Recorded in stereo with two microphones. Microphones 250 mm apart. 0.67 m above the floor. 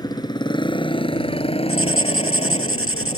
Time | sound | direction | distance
0.0 | a motorcycle | 15° left (ahead or behind) | ?
1.7 | writing | 60° left (ahead or behind) | ?